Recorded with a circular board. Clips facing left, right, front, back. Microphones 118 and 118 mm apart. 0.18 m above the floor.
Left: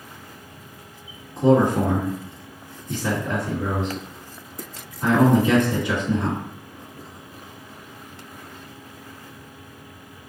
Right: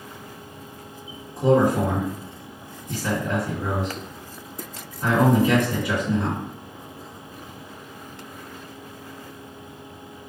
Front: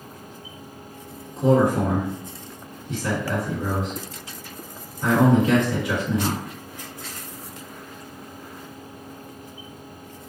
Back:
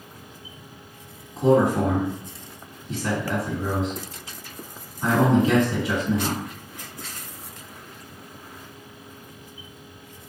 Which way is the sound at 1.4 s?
140° left.